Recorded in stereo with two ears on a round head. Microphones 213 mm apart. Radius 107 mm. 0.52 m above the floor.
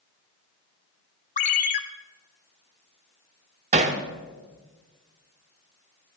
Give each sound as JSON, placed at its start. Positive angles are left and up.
{"t": 1.4, "sound": "a ringtone", "side_deg": 35, "distance_m": 0.9}
{"t": 3.7, "sound": "hammering", "side_deg": -30, "distance_m": 1.0}